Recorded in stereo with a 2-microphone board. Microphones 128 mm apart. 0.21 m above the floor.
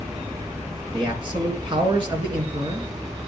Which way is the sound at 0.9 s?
40° right (ahead or behind).